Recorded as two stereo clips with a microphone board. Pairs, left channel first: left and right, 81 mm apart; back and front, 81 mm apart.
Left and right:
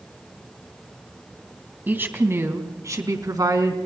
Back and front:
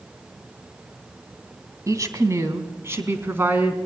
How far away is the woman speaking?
About 2.5 m.